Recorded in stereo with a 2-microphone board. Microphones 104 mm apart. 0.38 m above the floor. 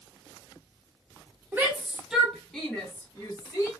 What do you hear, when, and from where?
1.5 s a shout: 20° right (ahead or behind), 1.1 m; by 3.7 s 30° left (ahead or behind), 1.3 m